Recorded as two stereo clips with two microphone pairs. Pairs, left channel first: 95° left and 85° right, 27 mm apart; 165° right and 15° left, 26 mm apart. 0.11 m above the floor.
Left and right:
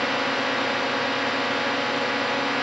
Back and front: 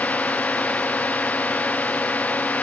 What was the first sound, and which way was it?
A drone, 170° right.